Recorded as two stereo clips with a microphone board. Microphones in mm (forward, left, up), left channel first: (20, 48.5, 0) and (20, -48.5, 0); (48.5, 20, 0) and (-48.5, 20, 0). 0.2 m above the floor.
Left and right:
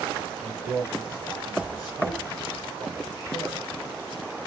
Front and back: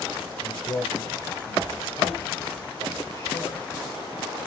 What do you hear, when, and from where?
0.4 s a man speaking: 45° right, 2.5 m